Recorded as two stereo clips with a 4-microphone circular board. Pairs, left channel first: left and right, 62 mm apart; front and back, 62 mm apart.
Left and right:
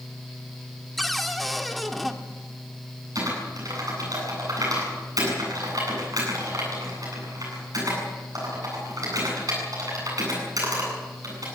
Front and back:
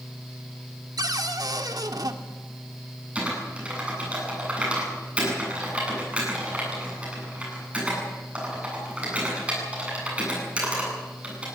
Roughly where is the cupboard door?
Behind.